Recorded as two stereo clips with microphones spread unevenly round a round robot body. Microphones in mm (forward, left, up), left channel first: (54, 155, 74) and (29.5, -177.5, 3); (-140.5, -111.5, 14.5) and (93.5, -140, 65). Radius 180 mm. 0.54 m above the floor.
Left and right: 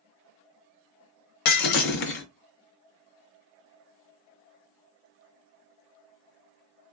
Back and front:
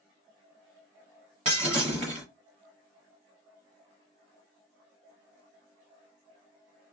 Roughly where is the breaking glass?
Ahead left.